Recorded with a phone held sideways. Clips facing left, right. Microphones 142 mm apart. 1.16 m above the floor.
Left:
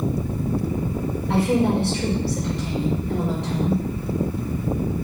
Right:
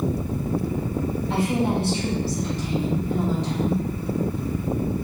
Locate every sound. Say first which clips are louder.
1.3 s a woman speaking: left 4 dB; 65° left (ahead or behind), 5.5 m